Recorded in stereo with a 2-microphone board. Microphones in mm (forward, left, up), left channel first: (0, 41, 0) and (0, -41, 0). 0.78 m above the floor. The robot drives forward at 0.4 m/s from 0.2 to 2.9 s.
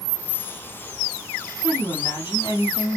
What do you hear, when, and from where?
1.6 s a woman speaking: 65° left (ahead or behind), 2.5 m